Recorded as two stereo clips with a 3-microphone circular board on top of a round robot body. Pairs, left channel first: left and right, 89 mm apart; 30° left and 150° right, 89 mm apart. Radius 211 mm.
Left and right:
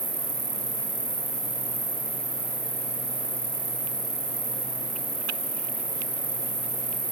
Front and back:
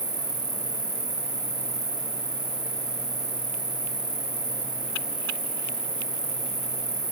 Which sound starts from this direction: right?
An insect, at 0.0 s.